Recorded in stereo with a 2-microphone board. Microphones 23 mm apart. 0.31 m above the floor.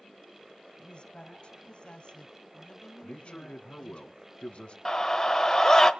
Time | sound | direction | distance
0.8 | a woman speaking | 50° left (ahead or behind) | 2.5 m
3.0 | a man speaking | 65° left (ahead or behind) | 2.5 m
4.8 | a scream | 25° left (ahead or behind) | 0.9 m